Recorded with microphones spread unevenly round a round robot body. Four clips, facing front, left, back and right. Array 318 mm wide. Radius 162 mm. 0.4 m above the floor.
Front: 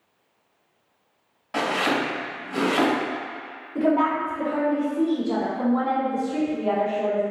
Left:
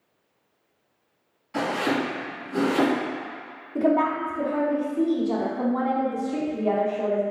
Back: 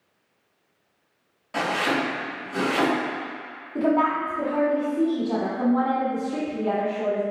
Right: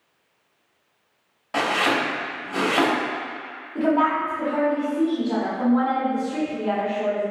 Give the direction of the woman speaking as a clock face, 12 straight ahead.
8 o'clock.